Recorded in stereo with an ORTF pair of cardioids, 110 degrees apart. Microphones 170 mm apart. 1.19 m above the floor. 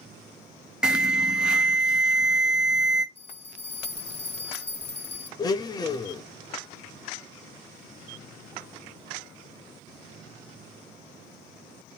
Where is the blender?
25° left, 0.9 m.